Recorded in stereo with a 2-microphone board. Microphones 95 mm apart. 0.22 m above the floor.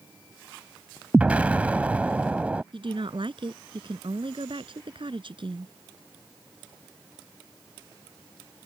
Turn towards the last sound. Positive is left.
turn(degrees=-65)  # may be behind; listen again after turning